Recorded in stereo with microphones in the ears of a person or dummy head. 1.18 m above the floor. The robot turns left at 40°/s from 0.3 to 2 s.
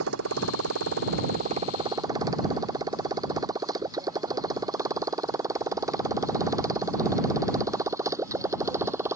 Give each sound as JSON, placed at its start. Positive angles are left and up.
{"t": 0.0, "sound": "a motorcycle", "side_deg": -85}